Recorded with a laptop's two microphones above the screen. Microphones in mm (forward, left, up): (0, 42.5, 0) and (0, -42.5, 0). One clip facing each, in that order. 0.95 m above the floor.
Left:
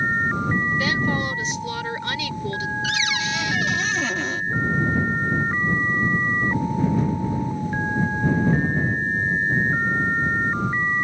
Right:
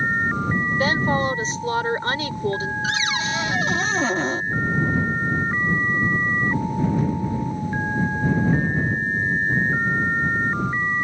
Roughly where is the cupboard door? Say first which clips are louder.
Right 1 dB; right.